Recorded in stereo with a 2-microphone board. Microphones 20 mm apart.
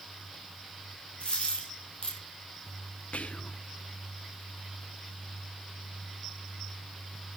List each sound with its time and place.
1.2 s a dropped coin: 55° left (ahead or behind), 6 m
3.1 s whispering: 80° left, 0.8 m